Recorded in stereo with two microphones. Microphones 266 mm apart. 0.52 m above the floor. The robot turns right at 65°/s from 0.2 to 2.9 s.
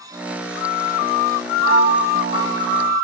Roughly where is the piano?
Behind left.